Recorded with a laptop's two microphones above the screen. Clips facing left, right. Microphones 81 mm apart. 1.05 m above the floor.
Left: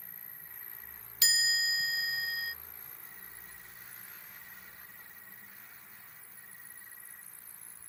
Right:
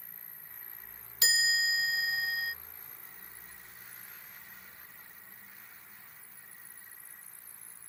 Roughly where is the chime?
Right.